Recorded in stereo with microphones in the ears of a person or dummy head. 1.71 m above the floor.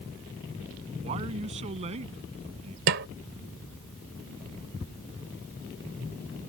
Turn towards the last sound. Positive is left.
turn(degrees=-55)  # may be behind; listen again after turning